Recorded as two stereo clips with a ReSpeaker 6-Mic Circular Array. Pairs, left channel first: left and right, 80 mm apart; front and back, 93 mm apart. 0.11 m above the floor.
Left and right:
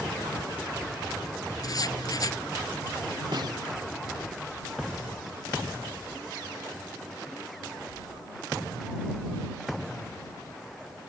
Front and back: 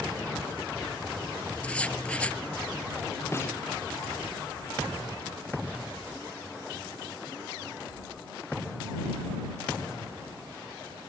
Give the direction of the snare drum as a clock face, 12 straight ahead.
2 o'clock.